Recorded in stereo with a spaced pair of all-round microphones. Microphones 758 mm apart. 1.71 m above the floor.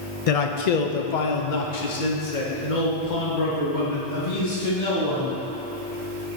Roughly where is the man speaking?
Left.